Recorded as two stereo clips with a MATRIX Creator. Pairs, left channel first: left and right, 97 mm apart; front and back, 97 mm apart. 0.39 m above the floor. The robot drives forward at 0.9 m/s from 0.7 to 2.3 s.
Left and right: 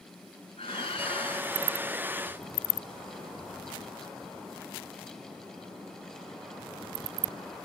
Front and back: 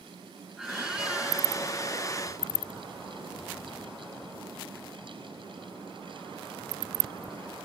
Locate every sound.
0.6 s a squeak: 95° left; by 1.5 s 105° left